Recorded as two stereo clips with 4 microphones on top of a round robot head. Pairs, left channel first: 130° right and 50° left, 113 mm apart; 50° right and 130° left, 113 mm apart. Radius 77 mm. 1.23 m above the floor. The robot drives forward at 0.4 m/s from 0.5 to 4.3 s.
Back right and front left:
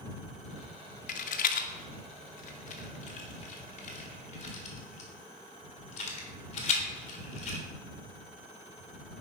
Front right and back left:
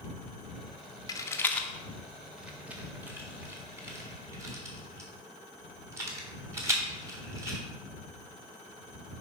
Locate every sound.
1.1 s a rattle: 110° right, 0.5 m; by 7.6 s 165° right, 1.5 m